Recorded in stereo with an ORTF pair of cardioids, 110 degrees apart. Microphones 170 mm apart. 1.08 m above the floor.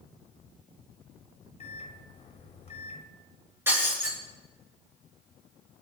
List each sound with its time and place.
1.6 s a microwave: 35° left, 3 m
3.7 s breaking glass: 15° right, 8 m